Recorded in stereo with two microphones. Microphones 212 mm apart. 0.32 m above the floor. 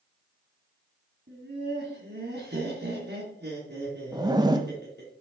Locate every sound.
1.3 s laughter: 55° right (ahead or behind), 2.5 m
4.1 s a zipper: 20° right (ahead or behind), 0.6 m